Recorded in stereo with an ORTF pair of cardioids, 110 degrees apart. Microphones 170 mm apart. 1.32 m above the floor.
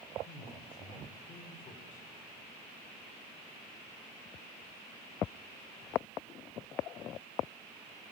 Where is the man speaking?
50° left, 5.5 m.